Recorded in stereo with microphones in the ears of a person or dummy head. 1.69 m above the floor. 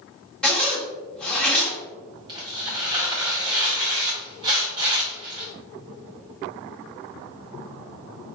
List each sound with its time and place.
0.4 s a zipper: 10° left (ahead or behind), 1.2 m
2.3 s tearing paper: 20° right (ahead or behind), 1.0 m